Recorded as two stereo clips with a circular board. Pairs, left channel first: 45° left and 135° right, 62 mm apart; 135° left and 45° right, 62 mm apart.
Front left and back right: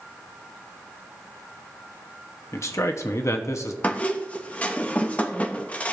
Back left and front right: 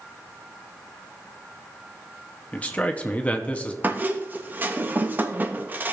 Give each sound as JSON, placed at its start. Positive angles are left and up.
{"t": 2.5, "sound": "a man speaking", "azimuth_deg": 70, "distance_m": 0.9}
{"t": 3.8, "sound": "a squeak", "azimuth_deg": -10, "distance_m": 0.7}